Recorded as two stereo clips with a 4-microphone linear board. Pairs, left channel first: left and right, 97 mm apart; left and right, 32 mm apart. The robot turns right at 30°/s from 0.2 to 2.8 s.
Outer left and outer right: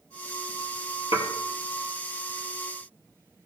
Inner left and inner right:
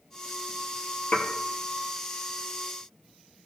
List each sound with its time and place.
1.1 s dishes clattering: 65° left (ahead or behind), 2 m